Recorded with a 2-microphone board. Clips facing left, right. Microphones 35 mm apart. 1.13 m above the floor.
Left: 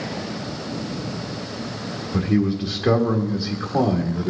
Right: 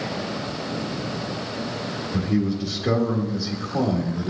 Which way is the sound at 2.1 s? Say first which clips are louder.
Left 3 dB; 30° left (ahead or behind).